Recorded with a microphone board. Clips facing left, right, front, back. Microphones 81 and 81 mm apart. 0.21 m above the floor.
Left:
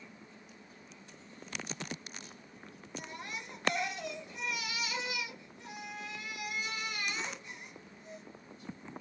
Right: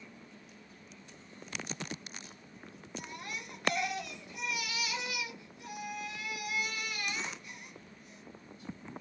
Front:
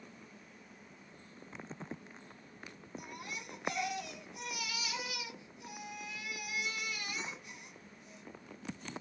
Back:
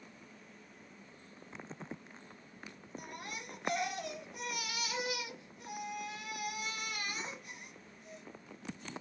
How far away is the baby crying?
About 1.6 m.